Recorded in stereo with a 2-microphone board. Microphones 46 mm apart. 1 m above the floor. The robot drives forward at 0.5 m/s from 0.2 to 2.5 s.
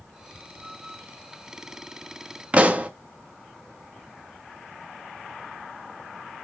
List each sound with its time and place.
2.5 s a pop: 30° right (ahead or behind), 0.5 m